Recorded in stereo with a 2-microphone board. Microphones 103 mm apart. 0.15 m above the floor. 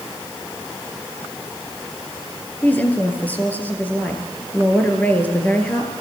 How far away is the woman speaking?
About 3.5 m.